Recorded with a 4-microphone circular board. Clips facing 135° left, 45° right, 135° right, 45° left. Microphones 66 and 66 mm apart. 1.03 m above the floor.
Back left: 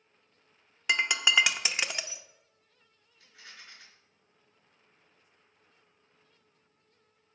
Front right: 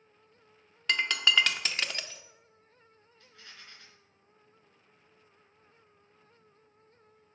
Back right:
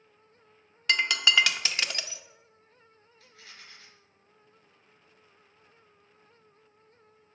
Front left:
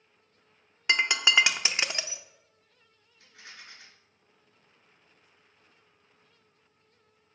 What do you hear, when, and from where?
0.9 s breaking glass: 75° left, 0.6 m
3.2 s a rattle: 60° left, 3.5 m